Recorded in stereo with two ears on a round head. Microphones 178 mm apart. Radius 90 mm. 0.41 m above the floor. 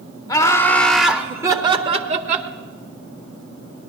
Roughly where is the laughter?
Centre.